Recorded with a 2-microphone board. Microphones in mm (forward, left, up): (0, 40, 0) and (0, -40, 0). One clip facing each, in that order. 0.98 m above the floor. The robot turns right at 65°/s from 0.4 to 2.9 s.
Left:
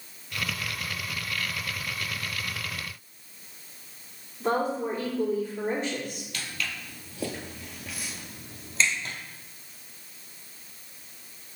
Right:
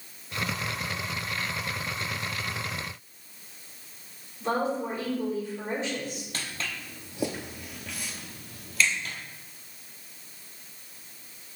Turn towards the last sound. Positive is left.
turn(degrees=35)  # may be behind; listen again after turning